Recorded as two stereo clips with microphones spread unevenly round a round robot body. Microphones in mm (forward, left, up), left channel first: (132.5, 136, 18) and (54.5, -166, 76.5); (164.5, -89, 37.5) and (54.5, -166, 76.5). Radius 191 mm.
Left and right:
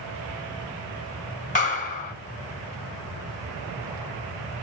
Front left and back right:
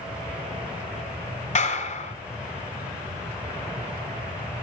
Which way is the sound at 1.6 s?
10° left.